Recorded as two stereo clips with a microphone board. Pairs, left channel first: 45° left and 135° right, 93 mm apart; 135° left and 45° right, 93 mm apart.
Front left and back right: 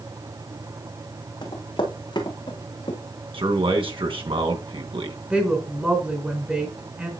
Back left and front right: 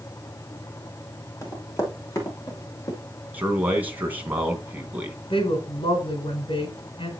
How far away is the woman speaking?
About 3 m.